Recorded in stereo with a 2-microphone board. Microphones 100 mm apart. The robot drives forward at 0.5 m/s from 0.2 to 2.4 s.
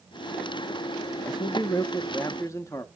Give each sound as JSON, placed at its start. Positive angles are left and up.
{"t": 1.3, "sound": "a man speaking", "side_deg": 45, "distance_m": 0.6}